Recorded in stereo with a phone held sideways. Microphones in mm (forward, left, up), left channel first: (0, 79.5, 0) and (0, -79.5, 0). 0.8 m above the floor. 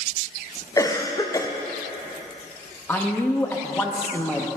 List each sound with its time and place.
0.8 s a cough: 20° left (ahead or behind), 0.7 m
2.9 s a man speaking: 10° left (ahead or behind), 0.7 m